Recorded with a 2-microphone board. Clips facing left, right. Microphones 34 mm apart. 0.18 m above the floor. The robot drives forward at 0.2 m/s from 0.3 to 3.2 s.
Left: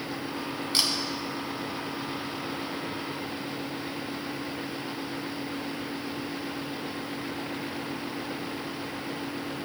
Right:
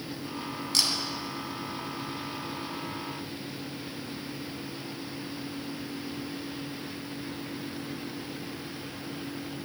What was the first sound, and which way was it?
A camera shutter, 20° left (ahead or behind).